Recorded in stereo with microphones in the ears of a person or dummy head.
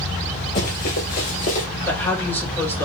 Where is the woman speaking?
10° left (ahead or behind), 2.5 m.